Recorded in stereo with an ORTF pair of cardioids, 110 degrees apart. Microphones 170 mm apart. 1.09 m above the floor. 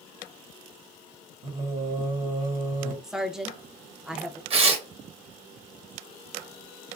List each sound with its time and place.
1.4 s singing: 55° right, 1.2 m
3.0 s a woman speaking: 5° right, 0.6 m
4.5 s tearing paper: 35° right, 0.8 m